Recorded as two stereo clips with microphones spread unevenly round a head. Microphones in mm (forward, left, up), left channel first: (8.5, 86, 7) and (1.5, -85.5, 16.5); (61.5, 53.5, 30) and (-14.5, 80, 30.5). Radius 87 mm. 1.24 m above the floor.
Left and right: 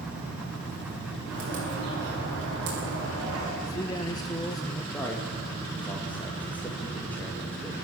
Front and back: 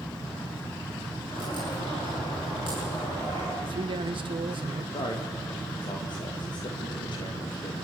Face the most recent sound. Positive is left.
turn(degrees=5)